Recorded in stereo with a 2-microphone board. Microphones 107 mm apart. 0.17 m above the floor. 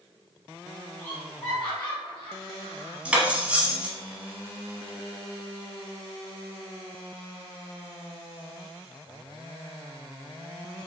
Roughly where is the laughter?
Centre.